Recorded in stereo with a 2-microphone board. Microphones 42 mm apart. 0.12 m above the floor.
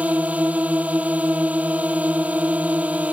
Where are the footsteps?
No footsteps in this recording.